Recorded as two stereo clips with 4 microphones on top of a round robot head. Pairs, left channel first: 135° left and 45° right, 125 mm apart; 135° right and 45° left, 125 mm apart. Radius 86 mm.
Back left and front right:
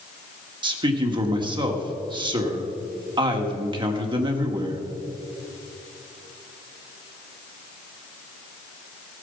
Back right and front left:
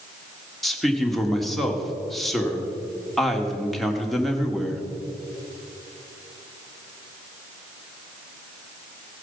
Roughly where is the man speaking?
Ahead right.